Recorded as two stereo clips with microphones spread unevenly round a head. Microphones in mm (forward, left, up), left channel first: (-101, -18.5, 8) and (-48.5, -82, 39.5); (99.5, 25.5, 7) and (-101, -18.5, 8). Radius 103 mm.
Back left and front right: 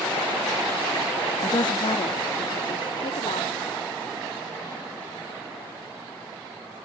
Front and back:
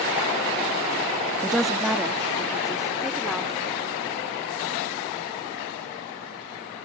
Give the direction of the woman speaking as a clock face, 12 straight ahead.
9 o'clock.